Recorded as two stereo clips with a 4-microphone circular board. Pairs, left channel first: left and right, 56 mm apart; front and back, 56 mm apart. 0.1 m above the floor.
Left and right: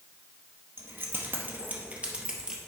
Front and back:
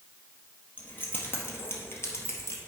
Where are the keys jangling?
55° right, 1.9 m; by 2.6 s 15° right, 1.5 m.